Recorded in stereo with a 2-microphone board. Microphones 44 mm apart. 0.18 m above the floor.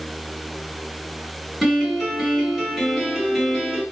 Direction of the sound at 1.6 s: 5° right (ahead or behind).